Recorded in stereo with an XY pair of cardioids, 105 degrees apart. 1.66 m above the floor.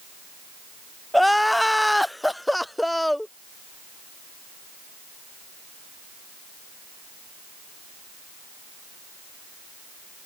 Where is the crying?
5° left.